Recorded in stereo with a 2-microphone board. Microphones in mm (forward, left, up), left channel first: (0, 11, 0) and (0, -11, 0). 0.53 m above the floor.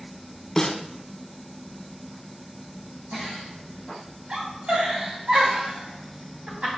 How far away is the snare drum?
About 0.8 m.